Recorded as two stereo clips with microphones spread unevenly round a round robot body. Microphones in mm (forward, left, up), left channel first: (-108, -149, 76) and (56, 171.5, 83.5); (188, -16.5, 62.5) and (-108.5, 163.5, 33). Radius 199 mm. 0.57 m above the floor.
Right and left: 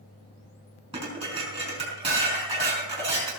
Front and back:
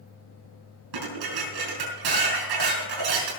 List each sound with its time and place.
0.9 s dishes clattering: 135° left, 5 m